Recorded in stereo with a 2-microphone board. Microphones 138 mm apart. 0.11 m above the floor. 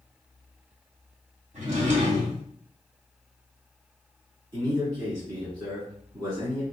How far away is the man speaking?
About 1.5 m.